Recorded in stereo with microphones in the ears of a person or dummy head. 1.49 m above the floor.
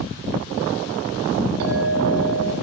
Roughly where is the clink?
Right.